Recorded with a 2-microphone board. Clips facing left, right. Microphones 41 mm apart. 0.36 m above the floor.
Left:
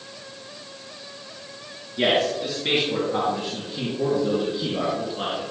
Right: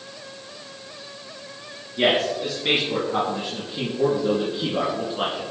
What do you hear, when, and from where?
2.0 s a man speaking: 5° right (ahead or behind), 5 m; by 5.5 s 25° right (ahead or behind), 3.5 m